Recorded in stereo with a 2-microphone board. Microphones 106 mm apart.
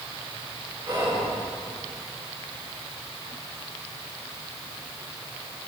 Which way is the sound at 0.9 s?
40° right (ahead or behind).